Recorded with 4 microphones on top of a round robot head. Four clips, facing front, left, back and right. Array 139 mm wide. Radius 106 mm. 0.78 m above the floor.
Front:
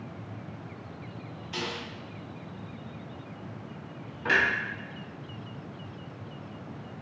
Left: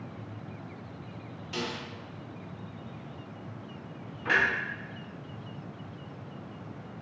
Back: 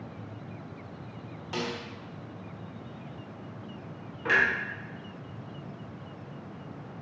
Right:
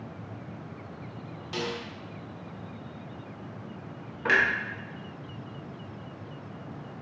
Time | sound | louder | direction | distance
1.5 | a snare drum | right 2 dB, back 2 dB | 155° right | 1.0 m
4.2 | a clunk | right 2 dB, even | 90° right | 1.1 m